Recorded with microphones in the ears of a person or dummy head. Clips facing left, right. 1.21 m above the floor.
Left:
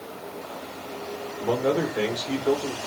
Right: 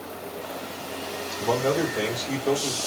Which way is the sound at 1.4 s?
5° left (ahead or behind).